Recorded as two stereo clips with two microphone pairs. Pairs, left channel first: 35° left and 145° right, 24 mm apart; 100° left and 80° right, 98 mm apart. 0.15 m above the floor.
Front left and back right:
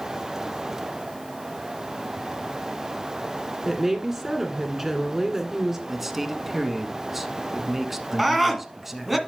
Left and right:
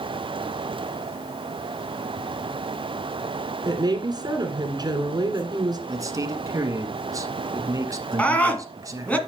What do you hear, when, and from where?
3.6 s a woman speaking: 75° right, 2 m
5.9 s a man speaking: 70° right, 1.4 m
8.2 s a scream: 150° left, 1.6 m